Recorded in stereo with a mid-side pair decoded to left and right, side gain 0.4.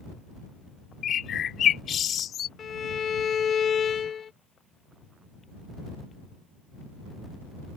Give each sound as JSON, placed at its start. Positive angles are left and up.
{"t": 1.0, "sound": "a bird", "azimuth_deg": 65}
{"t": 2.6, "sound": "a violin", "azimuth_deg": 55}